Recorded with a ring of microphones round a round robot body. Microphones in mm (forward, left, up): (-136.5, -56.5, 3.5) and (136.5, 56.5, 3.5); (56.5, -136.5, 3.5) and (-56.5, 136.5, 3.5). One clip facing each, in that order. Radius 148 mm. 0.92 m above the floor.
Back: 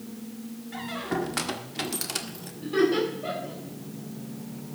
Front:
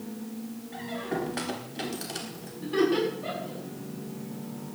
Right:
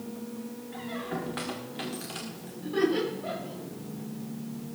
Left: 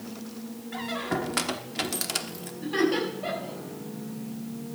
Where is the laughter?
105° left, 7 m.